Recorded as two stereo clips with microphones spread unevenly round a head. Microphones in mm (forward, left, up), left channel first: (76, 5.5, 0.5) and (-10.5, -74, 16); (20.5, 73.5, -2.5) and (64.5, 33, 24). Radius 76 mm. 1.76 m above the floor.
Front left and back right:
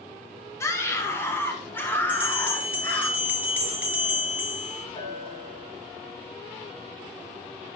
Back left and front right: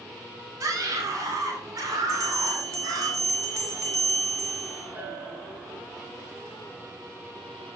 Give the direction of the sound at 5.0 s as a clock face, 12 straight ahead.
12 o'clock.